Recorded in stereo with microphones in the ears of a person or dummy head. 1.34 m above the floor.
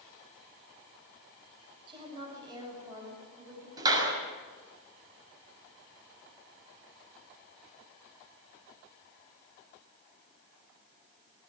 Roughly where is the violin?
I don't hear a violin.